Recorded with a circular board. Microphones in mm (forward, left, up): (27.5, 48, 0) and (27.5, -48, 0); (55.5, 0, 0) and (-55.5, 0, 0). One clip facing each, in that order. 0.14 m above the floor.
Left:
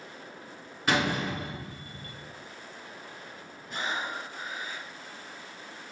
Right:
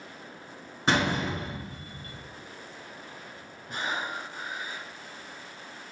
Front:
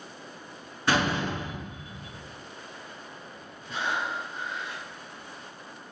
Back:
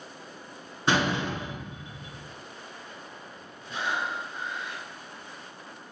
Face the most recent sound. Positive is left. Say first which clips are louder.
# right 1 dB, even
turn(degrees=-55)